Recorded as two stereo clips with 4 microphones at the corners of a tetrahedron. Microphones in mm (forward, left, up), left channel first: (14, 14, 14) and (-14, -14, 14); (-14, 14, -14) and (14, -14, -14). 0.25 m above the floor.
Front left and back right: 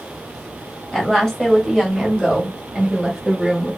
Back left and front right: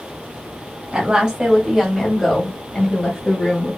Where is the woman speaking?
25° right, 1.2 m; by 3.8 s 165° left, 1.4 m.